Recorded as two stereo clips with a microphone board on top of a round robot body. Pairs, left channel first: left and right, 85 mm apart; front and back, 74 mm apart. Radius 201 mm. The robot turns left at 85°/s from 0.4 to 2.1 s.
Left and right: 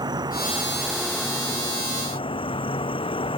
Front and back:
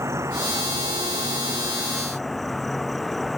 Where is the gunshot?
I don't hear a gunshot.